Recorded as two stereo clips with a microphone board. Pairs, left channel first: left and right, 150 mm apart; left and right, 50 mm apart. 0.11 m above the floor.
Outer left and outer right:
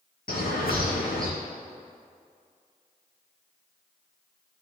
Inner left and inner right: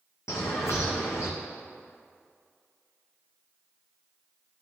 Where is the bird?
80° left, 1.9 m.